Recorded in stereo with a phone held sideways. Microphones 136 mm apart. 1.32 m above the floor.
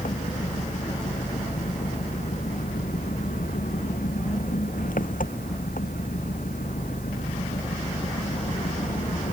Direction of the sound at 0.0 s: 85° left.